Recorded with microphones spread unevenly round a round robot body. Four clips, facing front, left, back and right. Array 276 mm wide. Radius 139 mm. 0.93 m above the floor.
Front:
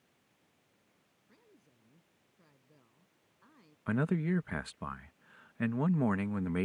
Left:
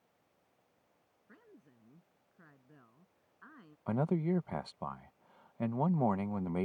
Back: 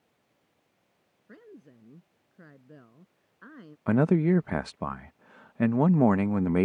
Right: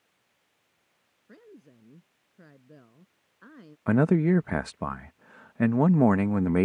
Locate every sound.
1.3 s a woman speaking: 150° right
3.9 s a man speaking: 125° right